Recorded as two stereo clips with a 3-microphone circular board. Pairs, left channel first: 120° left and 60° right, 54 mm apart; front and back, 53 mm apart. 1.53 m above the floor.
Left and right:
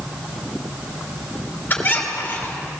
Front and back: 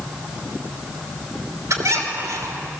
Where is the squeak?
175° left, 3 m.